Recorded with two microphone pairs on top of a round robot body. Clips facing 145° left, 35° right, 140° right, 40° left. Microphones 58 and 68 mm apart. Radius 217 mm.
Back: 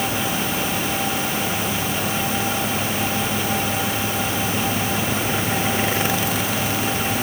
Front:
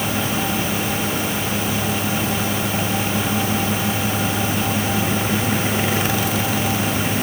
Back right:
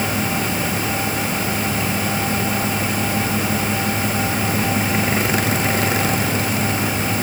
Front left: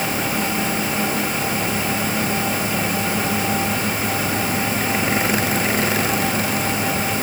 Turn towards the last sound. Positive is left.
No sound to turn to.